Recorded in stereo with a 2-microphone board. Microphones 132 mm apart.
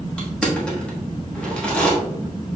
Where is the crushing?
10° left (ahead or behind), 1.3 m.